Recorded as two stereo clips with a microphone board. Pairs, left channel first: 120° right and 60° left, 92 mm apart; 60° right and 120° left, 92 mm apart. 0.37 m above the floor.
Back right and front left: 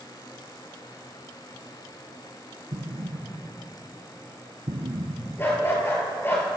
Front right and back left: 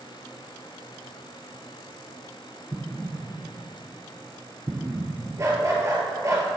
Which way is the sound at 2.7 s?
55° left.